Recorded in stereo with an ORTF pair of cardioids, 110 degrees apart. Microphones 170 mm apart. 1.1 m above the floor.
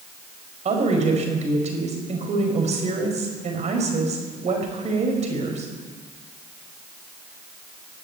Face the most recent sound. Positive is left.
turn(degrees=-40)